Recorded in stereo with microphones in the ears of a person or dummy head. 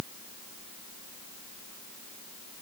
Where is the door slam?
I don't hear a door slam.